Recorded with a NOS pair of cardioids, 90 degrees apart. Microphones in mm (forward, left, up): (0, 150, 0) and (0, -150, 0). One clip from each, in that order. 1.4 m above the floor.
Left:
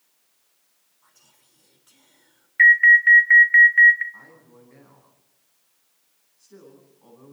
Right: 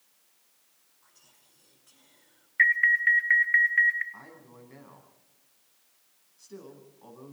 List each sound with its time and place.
1.0 s whispering: 25° left, 5 m
2.6 s an alarm: 15° left, 1.4 m
4.1 s a man speaking: 30° right, 9.5 m